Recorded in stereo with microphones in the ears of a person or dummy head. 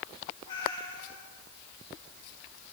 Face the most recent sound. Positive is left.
turn(degrees=20)  # may be behind; listen again after turning